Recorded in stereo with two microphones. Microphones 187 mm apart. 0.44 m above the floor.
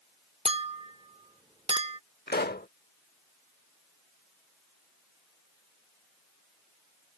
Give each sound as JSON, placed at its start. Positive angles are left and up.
{"t": 0.5, "sound": "a clink", "side_deg": -30}
{"t": 2.3, "sound": "a pop", "side_deg": 55}